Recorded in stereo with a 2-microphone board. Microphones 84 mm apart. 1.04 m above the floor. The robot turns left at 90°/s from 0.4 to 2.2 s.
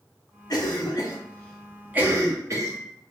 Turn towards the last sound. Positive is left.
turn(degrees=-40)  # may be behind; listen again after turning